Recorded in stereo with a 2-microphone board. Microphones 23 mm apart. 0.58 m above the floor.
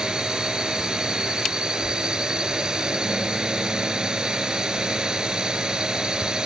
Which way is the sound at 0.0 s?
40° right (ahead or behind).